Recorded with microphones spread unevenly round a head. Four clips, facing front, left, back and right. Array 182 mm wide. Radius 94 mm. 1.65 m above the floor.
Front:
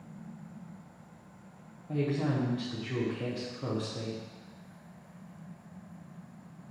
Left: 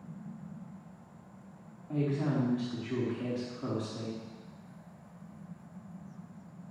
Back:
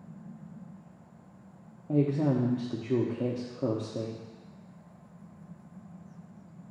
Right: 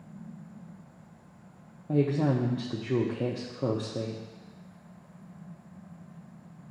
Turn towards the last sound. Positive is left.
turn(degrees=-130)